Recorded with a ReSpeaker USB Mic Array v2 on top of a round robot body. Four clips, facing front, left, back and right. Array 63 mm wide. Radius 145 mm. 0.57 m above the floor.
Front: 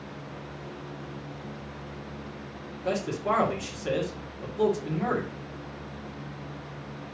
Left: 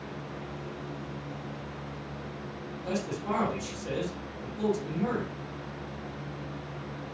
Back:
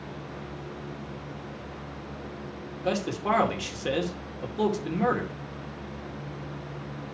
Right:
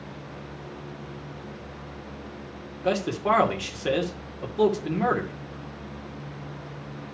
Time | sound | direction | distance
2.8 | a man speaking | 115° right | 2.5 m